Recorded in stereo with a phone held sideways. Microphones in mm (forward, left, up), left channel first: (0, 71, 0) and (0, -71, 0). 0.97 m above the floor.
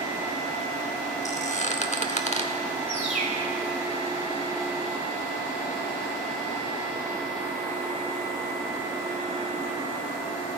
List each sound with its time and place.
1.2 s a squeak: 55° left (ahead or behind), 0.9 m
2.9 s a bird: 50° right (ahead or behind), 3.5 m